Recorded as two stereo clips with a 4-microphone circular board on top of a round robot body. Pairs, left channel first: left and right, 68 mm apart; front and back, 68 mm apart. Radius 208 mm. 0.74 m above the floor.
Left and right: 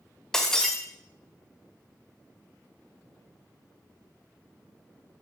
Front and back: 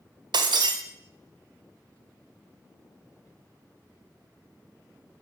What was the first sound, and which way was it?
Breaking glass, 170° left.